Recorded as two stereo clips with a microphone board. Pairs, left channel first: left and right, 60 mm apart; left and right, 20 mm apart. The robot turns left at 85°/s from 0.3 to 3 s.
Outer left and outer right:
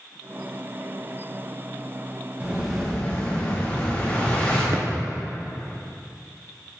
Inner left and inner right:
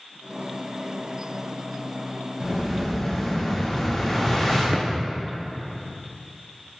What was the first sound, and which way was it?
An explosion, 150° right.